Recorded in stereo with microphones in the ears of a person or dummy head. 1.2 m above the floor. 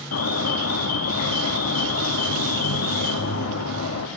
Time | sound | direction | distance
0.1 | an alarm | 85° left | 2 m